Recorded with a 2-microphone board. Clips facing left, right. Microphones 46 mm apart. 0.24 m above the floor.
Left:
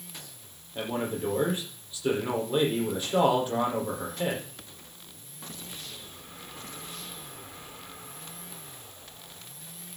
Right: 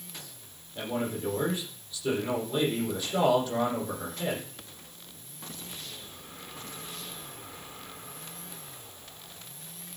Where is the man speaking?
25° left (ahead or behind), 7 m.